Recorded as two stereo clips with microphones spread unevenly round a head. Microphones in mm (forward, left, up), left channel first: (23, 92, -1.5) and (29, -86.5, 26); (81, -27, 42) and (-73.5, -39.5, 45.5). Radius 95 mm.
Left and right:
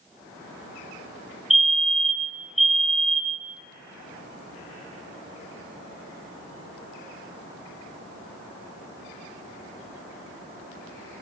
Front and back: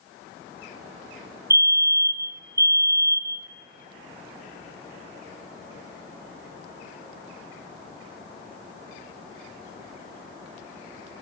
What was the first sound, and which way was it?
A fire alarm, 160° left.